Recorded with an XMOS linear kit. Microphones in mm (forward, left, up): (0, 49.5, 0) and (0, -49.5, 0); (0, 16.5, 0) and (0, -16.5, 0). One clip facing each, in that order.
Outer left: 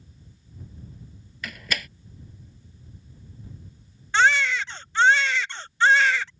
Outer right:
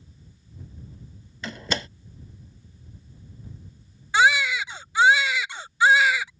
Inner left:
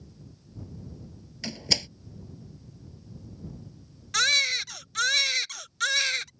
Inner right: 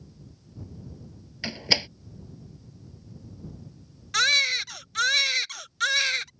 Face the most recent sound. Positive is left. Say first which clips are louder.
# outer right 1 dB, inner right 2 dB
turn(degrees=-10)  # may be behind; listen again after turning